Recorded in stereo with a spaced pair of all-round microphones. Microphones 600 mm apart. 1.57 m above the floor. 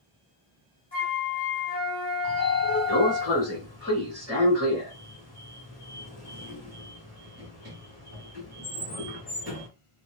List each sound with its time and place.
0.9 s a flute: 15° left (ahead or behind), 1.2 m
2.2 s a sliding door: 25° right (ahead or behind), 1.6 m